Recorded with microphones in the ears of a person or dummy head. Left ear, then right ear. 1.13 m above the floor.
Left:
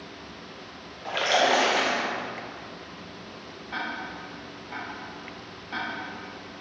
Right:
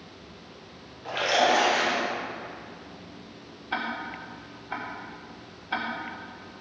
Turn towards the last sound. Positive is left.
turn(degrees=-45)  # may be behind; listen again after turning